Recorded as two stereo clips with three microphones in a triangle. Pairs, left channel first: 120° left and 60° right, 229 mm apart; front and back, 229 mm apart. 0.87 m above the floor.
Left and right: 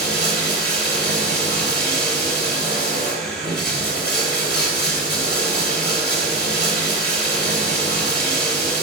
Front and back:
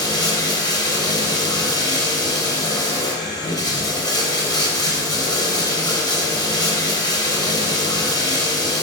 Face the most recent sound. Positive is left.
turn(degrees=70)